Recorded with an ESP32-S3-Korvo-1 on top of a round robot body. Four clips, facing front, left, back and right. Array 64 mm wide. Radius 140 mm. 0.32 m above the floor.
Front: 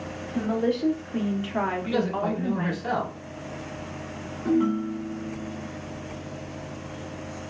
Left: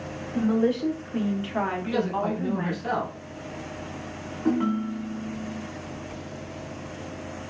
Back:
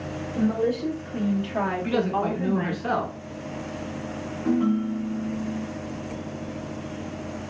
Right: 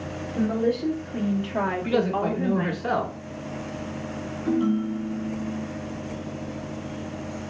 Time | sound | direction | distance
0.3 | a woman speaking | 50° left | 1.3 m
1.9 | a man speaking | 140° right | 1.2 m
4.5 | a ringtone | 85° left | 0.9 m